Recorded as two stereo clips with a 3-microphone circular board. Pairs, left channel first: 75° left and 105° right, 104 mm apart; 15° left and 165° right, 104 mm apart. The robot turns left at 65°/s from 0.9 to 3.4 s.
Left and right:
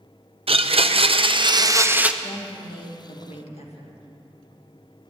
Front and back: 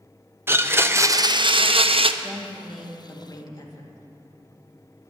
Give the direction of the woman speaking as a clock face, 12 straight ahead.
7 o'clock.